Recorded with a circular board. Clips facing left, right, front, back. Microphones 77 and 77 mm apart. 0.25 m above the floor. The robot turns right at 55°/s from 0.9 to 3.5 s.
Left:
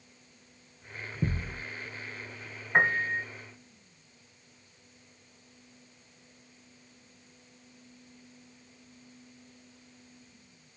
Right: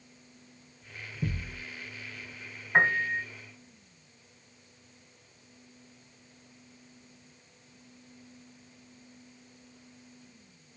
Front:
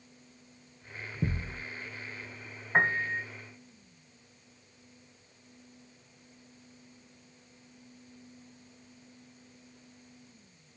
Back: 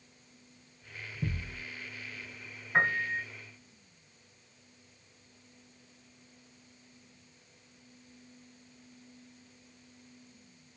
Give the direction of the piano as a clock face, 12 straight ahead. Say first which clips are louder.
Right 1 dB, front 1 dB; 12 o'clock.